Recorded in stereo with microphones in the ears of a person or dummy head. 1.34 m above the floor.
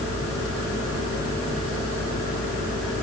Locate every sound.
Only background noise.